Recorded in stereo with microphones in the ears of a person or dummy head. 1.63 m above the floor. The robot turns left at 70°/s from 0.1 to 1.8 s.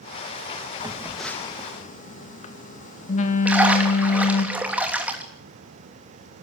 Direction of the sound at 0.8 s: 155° right.